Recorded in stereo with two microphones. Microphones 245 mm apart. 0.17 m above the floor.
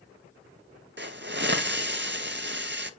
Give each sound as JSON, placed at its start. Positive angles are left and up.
{"t": 1.0, "sound": "a hiss", "side_deg": -45, "distance_m": 0.7}